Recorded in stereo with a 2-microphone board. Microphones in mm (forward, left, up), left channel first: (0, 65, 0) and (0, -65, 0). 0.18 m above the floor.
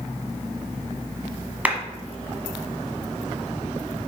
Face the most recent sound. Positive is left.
turn(degrees=-10)  # may be behind; listen again after turning